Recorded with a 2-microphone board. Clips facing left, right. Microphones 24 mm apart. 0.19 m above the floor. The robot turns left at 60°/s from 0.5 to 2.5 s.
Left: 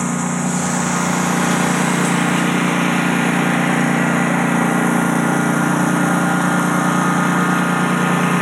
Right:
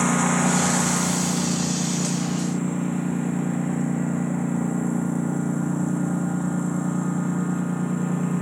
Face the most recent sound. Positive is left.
turn(degrees=60)